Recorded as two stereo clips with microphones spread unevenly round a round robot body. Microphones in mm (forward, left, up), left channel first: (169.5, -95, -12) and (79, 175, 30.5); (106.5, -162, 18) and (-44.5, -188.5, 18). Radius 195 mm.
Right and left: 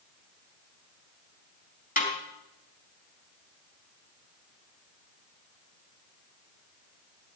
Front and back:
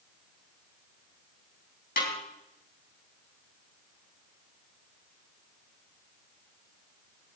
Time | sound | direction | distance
2.0 | a snare drum | 10° right | 4 m